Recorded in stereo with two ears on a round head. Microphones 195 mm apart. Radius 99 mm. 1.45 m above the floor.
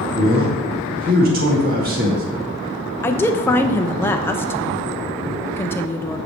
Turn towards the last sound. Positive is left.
turn(degrees=10)  # may be behind; listen again after turning